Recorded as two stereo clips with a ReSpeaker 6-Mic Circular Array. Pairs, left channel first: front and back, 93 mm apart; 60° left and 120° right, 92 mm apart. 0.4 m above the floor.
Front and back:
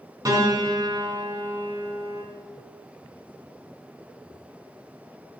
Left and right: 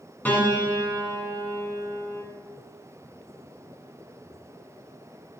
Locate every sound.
0.2 s a piano: 130° left, 1.6 m